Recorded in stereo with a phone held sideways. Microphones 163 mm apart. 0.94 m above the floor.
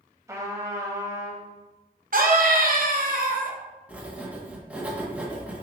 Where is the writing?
10° right (ahead or behind), 0.7 m.